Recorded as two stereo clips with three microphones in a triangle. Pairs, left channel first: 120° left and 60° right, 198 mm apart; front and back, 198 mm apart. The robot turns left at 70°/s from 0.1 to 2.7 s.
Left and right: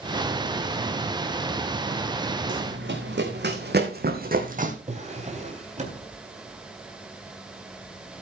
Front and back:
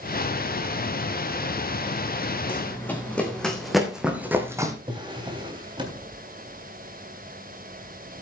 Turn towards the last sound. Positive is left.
turn(degrees=-115)